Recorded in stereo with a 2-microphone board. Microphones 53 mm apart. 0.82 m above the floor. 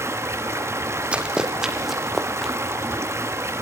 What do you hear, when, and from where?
0.0 s running water: 60° right (ahead or behind), 1.0 m
1.1 s running footsteps: 20° right (ahead or behind), 1.8 m; by 2.5 s 5° left (ahead or behind), 2.5 m